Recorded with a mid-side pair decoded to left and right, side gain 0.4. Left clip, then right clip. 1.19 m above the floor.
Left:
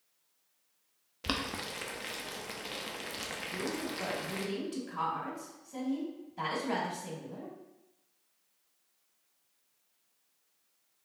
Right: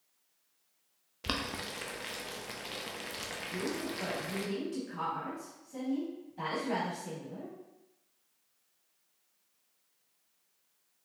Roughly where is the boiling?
Ahead.